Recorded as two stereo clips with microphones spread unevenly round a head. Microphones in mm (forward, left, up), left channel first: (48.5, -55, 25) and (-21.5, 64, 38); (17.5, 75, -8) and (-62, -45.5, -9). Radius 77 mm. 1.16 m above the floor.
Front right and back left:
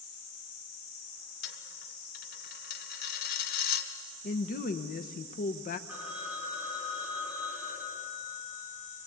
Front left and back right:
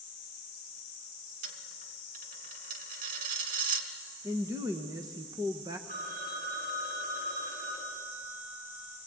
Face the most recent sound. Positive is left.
turn(degrees=-160)